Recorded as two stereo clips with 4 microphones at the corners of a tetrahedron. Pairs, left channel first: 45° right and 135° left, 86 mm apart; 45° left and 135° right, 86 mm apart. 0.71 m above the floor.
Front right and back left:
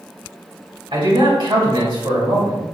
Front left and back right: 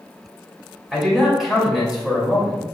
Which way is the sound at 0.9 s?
135° left.